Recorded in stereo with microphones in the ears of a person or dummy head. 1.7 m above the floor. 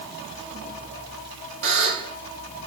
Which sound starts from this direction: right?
A buzzer, at 1.6 s.